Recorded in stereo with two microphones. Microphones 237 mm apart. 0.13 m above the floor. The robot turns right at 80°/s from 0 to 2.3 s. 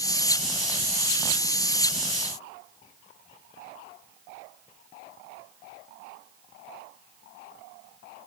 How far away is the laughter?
No laughter in this recording.